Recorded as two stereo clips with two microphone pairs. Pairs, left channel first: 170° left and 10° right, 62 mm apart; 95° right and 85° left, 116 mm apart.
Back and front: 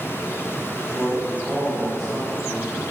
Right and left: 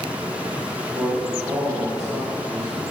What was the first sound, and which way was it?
A man speaking, 100° left.